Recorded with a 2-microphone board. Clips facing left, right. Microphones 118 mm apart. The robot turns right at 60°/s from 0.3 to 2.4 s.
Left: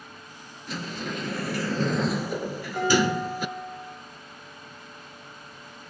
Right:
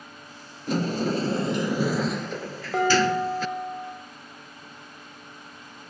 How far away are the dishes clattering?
About 7.5 m.